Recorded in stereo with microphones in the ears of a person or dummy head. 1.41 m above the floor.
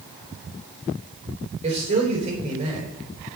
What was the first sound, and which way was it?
A man speaking, 40° right (ahead or behind).